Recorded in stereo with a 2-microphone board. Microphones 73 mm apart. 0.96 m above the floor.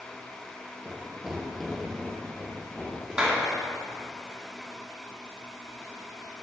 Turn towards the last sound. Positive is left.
turn(degrees=-10)  # may be behind; listen again after turning